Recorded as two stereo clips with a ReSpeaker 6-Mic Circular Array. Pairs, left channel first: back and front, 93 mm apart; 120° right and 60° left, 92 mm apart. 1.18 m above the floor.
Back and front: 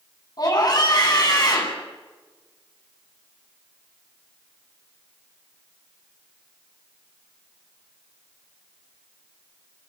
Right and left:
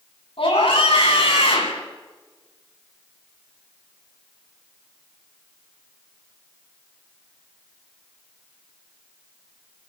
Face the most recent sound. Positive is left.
turn(degrees=-135)